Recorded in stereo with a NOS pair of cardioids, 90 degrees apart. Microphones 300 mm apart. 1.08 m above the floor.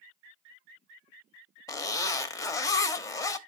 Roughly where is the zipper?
Ahead.